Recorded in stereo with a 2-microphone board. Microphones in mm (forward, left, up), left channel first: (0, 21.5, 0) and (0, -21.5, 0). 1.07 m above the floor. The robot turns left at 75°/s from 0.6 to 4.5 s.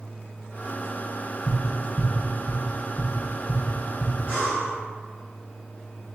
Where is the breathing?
30° left (ahead or behind), 1.9 m; by 4.8 s 15° left (ahead or behind), 1.9 m.